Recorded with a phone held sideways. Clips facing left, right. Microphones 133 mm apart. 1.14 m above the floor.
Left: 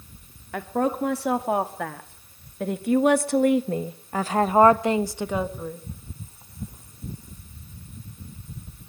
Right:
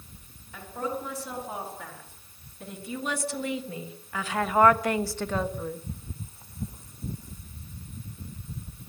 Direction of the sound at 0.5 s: 85° left.